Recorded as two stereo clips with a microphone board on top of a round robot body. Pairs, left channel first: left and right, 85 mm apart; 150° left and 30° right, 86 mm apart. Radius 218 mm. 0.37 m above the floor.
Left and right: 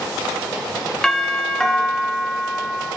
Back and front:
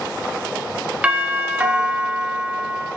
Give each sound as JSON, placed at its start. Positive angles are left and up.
{"t": 1.0, "sound": "a doorbell", "azimuth_deg": 20, "distance_m": 1.2}